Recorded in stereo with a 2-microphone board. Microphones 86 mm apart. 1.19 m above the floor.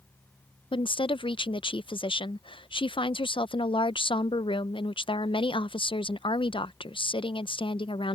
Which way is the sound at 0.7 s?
85° left.